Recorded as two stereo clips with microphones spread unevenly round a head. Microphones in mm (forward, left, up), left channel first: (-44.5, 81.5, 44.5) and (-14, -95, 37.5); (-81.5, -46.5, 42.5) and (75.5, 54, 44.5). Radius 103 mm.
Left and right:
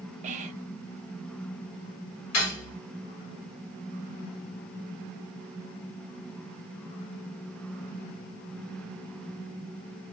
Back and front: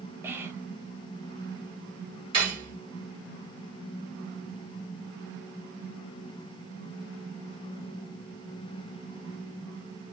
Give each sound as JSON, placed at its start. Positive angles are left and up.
{"t": 0.2, "sound": "whispering", "azimuth_deg": -45, "distance_m": 0.6}
{"t": 2.3, "sound": "cutlery clinking", "azimuth_deg": 95, "distance_m": 1.6}